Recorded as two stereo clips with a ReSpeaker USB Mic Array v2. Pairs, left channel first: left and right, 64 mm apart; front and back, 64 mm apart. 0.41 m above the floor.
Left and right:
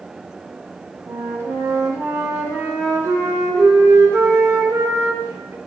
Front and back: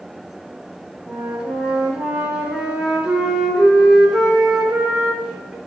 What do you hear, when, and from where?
1.1 s a flute: 110° right, 0.6 m